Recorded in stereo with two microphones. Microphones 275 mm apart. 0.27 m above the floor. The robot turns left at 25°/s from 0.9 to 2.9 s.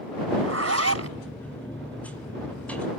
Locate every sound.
0.4 s a zipper: 60° right (ahead or behind)